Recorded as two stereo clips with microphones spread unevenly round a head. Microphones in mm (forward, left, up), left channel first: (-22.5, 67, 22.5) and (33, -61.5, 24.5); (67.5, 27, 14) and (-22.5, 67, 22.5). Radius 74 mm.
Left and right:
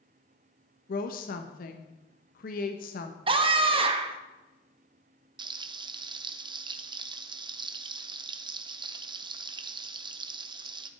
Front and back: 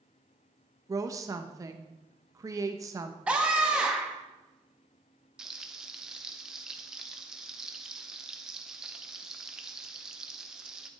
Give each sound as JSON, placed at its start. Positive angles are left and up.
{"t": 0.9, "sound": "a woman speaking", "azimuth_deg": 100, "distance_m": 1.2}
{"t": 3.3, "sound": "a scream", "azimuth_deg": -120, "distance_m": 1.5}
{"t": 5.4, "sound": "frying", "azimuth_deg": -115, "distance_m": 0.9}